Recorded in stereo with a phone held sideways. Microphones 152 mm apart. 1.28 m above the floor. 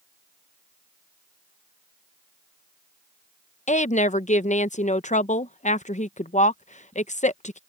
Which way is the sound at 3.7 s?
50° left (ahead or behind).